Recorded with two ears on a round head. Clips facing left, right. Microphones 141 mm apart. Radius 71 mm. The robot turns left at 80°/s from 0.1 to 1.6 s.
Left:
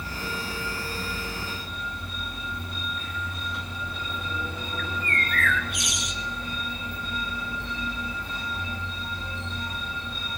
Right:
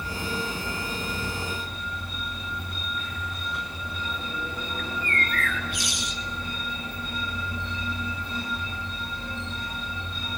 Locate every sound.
4.8 s a bird: 30° right (ahead or behind), 1.3 m